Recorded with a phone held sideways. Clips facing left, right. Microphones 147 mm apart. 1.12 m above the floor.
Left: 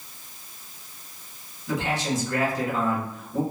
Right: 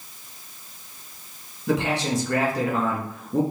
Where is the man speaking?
80° right, 1.2 m.